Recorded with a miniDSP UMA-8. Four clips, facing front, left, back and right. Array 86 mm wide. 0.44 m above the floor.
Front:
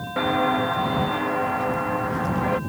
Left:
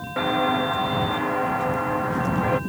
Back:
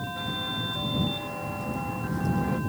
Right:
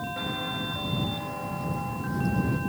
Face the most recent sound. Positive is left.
turn(degrees=55)